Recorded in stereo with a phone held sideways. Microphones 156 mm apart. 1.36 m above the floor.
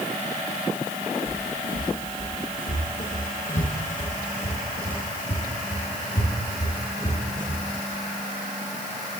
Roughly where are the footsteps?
Left.